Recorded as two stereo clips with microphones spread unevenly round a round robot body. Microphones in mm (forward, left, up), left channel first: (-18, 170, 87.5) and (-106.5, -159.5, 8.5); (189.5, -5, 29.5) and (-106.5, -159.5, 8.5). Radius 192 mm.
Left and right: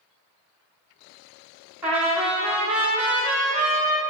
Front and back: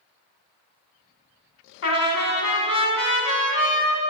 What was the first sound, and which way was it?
A trumpet, 25° right.